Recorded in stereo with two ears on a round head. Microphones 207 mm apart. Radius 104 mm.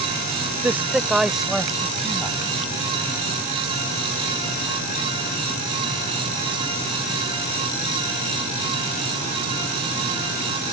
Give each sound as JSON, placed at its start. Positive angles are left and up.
{"t": 0.6, "sound": "a man speaking", "side_deg": -10}